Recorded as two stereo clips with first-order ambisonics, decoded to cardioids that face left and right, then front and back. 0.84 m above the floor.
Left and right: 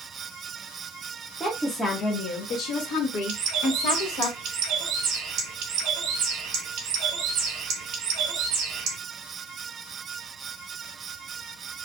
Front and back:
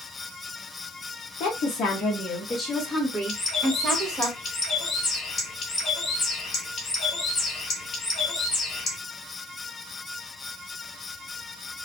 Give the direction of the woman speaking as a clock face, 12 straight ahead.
12 o'clock.